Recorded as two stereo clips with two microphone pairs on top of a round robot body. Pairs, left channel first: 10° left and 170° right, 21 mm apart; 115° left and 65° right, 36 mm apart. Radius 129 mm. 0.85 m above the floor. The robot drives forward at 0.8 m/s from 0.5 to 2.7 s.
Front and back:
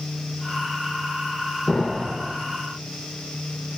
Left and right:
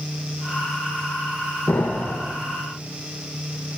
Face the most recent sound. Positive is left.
turn(degrees=140)